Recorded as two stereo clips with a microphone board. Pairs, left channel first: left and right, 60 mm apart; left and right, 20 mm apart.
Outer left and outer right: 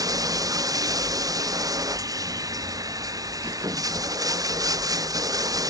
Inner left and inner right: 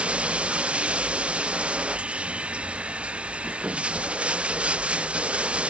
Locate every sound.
0.0 s running water: 85° right